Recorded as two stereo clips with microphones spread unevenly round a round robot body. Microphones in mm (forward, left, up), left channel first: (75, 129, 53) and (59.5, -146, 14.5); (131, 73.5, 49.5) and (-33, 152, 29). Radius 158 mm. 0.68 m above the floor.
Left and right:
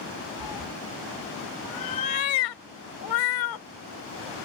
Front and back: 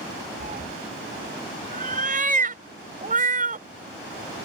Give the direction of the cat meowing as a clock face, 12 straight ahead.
8 o'clock.